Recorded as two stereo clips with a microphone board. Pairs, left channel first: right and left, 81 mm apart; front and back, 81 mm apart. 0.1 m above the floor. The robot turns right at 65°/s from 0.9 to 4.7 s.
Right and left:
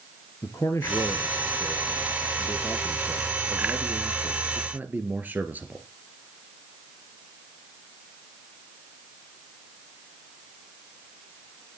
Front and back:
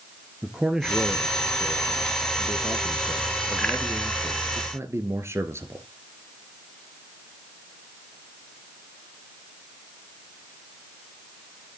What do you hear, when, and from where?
0.4 s a man speaking: 100° right, 1.9 m; by 5.8 s 145° left, 1.9 m